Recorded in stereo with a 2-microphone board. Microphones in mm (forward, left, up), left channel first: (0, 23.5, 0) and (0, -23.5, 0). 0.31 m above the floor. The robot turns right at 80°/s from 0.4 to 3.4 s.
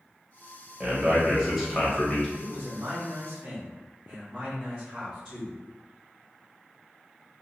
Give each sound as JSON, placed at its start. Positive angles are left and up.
{"t": 0.8, "sound": "a man speaking", "side_deg": -25, "distance_m": 1.0}
{"t": 2.4, "sound": "a man speaking", "azimuth_deg": -100, "distance_m": 1.4}